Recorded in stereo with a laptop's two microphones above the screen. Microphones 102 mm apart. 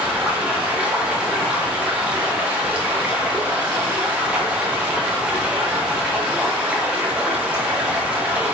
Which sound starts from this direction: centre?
Running water, at 0.0 s.